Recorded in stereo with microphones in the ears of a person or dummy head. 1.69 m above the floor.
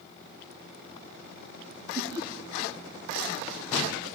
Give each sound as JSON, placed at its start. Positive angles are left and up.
{"t": 1.9, "sound": "laughter", "side_deg": -25, "distance_m": 3.0}